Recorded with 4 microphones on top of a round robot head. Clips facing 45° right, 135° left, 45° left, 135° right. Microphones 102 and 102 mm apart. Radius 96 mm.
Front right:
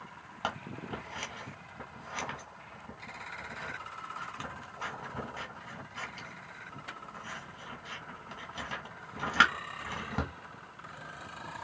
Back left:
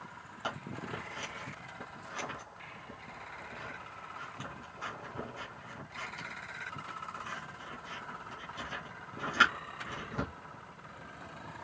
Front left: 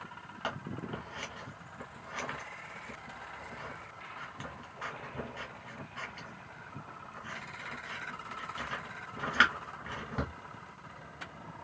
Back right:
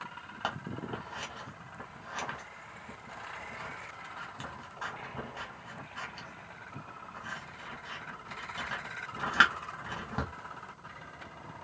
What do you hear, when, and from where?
0.4 s scissors: 75° right, 2 m